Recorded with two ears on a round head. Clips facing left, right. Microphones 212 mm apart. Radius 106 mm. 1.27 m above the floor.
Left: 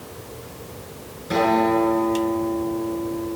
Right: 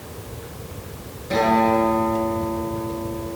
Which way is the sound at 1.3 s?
20° left (ahead or behind).